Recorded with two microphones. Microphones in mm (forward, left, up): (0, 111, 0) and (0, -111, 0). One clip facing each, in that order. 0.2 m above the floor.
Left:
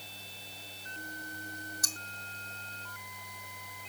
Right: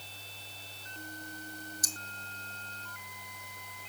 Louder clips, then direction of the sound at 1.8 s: Even; 80° left.